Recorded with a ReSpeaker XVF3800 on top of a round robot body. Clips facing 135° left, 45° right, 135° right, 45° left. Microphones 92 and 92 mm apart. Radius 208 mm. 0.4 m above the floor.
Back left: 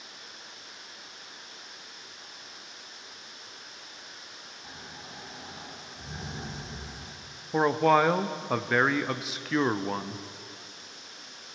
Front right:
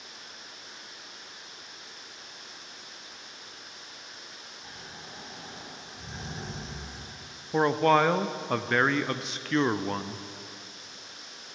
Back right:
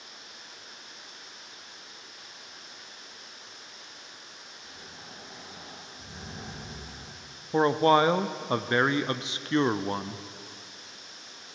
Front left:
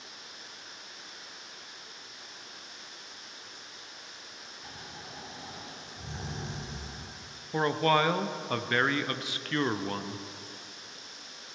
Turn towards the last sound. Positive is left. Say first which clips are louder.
# even, back right 5 dB
turn(degrees=-145)